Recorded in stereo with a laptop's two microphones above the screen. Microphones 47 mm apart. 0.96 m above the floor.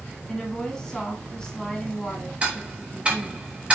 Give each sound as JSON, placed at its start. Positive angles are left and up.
{"t": 0.3, "sound": "a woman speaking", "side_deg": 5, "distance_m": 2.0}
{"t": 2.4, "sound": "ticking", "side_deg": -25, "distance_m": 1.2}